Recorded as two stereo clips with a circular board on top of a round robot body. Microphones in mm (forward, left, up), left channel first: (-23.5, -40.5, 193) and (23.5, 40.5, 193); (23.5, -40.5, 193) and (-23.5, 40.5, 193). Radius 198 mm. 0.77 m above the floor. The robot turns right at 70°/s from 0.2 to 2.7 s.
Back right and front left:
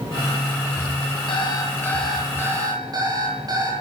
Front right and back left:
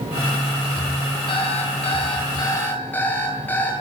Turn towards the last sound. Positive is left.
turn(degrees=10)